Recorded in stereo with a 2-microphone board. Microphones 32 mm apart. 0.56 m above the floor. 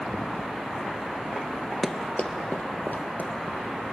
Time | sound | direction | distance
1.8 | running footsteps | 15° left (ahead or behind) | 0.6 m